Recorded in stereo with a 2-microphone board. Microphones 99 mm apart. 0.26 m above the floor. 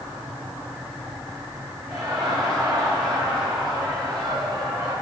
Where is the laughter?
45° right (ahead or behind), 4.5 m.